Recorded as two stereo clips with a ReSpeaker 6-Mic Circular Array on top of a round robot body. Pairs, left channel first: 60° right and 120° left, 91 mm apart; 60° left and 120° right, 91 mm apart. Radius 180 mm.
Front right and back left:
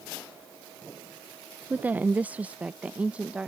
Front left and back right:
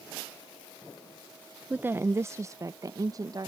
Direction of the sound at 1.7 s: Straight behind.